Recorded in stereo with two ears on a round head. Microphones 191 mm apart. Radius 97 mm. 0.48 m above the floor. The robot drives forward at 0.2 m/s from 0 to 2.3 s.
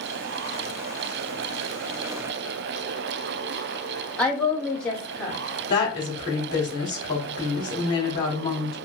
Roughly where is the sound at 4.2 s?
Centre.